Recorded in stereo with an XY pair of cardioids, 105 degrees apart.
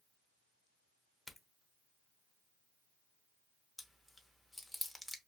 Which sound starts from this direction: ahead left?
A crack, at 1.3 s.